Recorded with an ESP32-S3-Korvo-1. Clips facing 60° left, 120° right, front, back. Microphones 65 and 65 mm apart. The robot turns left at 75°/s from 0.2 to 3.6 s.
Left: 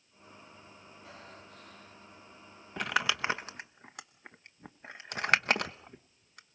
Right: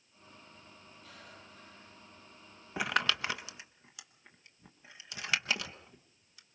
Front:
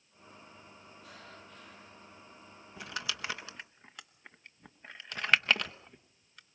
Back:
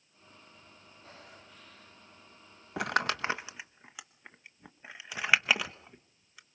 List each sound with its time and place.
1.0 s breathing: 125° left, 5 m; by 2.1 s 50° left, 5 m
2.8 s crumpling: 160° left, 0.9 m; by 6.6 s 95° left, 0.9 m